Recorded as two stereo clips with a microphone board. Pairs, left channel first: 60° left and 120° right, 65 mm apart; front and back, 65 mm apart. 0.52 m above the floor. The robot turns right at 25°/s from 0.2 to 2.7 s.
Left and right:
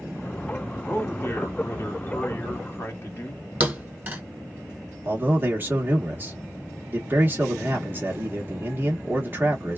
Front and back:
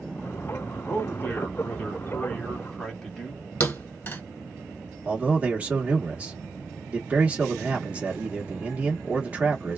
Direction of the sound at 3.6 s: 55° right.